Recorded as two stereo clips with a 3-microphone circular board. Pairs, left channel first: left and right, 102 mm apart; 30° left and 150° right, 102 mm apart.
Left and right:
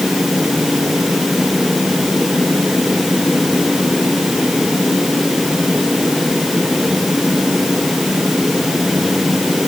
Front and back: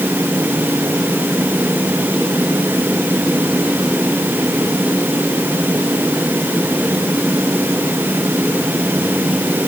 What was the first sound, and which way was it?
Only background noise.